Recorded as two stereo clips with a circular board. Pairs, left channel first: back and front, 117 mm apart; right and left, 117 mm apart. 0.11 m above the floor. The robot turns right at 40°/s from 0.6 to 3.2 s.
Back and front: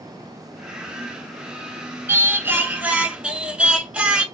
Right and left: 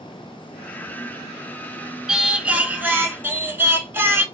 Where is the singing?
15° left, 0.6 m; by 4.2 s 60° left, 0.6 m.